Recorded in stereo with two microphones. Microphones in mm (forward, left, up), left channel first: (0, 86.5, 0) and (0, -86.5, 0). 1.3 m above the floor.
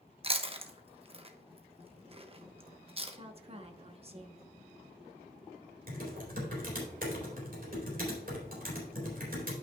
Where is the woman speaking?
35° right (ahead or behind), 1.1 m.